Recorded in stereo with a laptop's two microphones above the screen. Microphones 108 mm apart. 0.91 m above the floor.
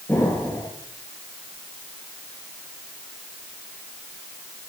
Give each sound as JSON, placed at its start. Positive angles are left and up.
{"t": 0.1, "sound": "an explosion", "side_deg": 25, "distance_m": 3.5}